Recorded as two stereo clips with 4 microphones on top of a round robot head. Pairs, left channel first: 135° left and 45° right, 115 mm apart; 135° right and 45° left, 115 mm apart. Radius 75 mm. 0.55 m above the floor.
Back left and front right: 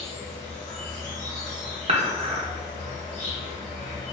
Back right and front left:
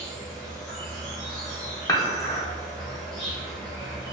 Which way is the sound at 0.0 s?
135° left.